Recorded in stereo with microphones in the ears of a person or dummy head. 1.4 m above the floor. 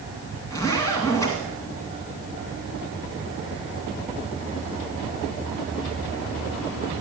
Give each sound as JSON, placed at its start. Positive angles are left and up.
{"t": 0.5, "sound": "a zipper", "side_deg": 15, "distance_m": 1.9}